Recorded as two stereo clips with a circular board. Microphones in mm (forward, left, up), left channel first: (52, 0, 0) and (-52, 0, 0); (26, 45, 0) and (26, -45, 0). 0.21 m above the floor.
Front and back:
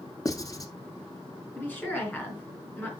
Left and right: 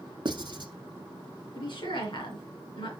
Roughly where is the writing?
Ahead right.